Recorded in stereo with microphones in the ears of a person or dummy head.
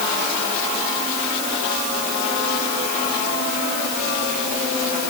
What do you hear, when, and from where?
Only background noise.